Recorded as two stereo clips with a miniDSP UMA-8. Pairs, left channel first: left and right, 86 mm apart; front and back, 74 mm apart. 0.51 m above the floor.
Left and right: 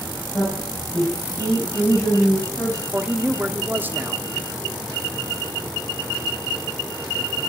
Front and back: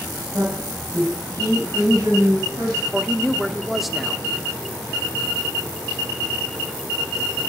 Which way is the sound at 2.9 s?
95° right.